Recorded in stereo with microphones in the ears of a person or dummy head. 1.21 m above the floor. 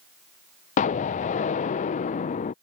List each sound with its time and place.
0.8 s an explosion: 35° left (ahead or behind)